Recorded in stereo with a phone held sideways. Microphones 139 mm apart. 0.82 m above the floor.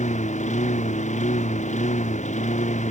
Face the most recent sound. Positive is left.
turn(degrees=60)  # may be behind; listen again after turning